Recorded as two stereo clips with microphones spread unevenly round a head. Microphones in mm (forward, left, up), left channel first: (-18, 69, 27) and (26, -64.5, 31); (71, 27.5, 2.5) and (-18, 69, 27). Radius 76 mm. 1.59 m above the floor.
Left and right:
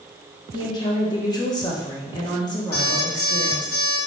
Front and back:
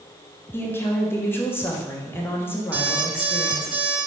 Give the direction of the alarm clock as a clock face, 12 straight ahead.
9 o'clock.